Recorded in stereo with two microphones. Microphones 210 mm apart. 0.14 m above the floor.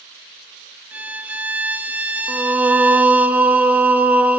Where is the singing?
10° right (ahead or behind), 1.1 m.